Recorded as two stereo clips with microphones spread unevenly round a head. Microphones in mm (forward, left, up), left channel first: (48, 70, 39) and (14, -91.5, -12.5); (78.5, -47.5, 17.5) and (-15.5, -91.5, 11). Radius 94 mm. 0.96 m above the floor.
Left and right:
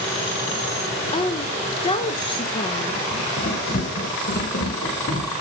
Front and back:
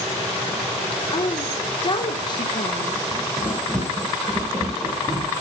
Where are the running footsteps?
120° left, 3.5 m; by 5.3 s 105° left, 4 m.